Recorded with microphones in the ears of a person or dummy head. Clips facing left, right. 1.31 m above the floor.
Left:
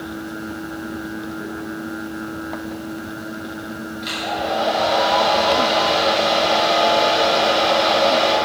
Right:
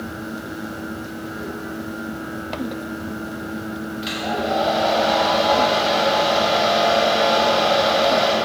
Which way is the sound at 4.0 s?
10° right (ahead or behind).